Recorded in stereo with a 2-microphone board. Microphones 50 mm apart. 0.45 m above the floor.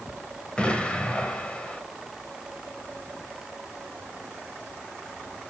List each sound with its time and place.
0.6 s an explosion: 25° left (ahead or behind), 1.5 m